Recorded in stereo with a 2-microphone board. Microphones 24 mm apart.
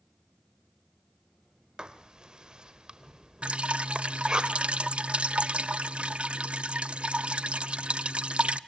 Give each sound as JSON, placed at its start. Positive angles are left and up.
{"t": 1.8, "sound": "writing", "side_deg": -35, "distance_m": 1.5}
{"t": 3.4, "sound": "dripping", "side_deg": -50, "distance_m": 0.5}